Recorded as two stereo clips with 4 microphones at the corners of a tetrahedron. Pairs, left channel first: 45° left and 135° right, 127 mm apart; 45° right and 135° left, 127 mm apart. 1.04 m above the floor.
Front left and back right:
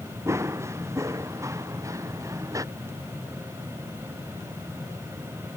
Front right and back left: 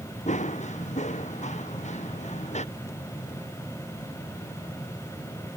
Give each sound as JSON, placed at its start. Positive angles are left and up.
{"t": 0.3, "sound": "running footsteps", "azimuth_deg": -70}